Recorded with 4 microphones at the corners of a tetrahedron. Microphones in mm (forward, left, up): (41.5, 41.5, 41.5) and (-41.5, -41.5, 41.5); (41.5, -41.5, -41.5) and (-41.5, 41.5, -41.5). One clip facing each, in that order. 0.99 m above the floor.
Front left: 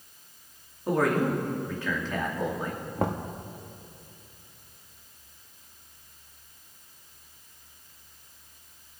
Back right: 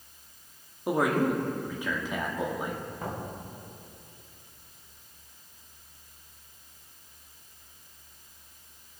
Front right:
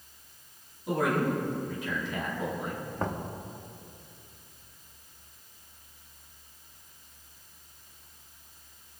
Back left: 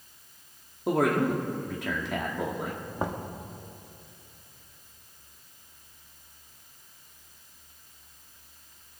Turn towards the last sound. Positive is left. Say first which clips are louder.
# front left 7 dB, back left 1 dB
turn(degrees=55)